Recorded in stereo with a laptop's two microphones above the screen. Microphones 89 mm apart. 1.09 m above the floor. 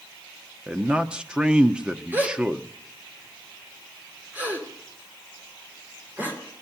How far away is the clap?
No clap in this recording.